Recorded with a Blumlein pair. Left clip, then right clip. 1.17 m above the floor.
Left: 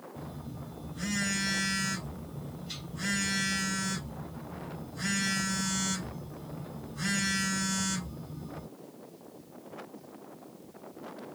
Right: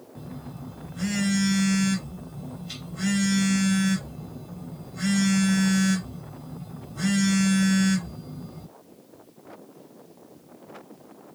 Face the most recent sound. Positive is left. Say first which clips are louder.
# right 2 dB
turn(degrees=-20)